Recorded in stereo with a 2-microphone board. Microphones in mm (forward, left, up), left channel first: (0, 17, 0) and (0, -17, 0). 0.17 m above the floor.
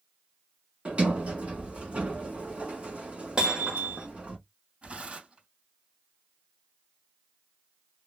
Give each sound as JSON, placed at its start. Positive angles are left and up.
{"t": 0.8, "sound": "a sliding door", "side_deg": -40, "distance_m": 1.6}
{"t": 3.4, "sound": "hammering", "side_deg": -30, "distance_m": 1.8}
{"t": 4.8, "sound": "tearing paper", "side_deg": -35, "distance_m": 2.5}